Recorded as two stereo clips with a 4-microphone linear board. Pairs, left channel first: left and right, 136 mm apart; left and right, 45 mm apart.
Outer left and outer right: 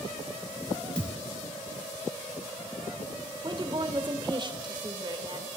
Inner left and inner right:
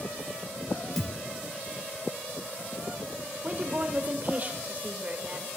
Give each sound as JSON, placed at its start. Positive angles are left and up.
{"t": 1.0, "sound": "a thud", "side_deg": 5, "distance_m": 1.1}
{"t": 3.4, "sound": "a woman speaking", "side_deg": -35, "distance_m": 1.7}